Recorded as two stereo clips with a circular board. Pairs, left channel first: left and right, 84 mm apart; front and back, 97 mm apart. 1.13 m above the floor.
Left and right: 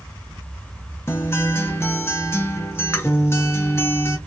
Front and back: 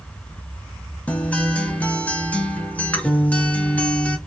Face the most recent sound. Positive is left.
turn(degrees=65)